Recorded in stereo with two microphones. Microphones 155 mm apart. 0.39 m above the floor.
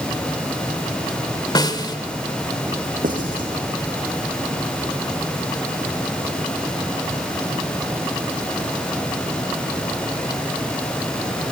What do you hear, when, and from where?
1.6 s a snare drum: 25° left (ahead or behind), 1.7 m
3.0 s writing: 60° right (ahead or behind), 4.5 m